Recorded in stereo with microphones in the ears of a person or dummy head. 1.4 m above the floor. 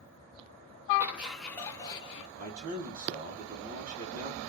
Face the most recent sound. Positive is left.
turn(degrees=-40)  # may be behind; listen again after turning